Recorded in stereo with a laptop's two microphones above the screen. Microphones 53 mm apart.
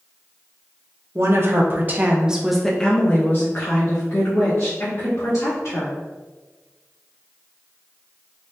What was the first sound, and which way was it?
A woman speaking, 55° right (ahead or behind).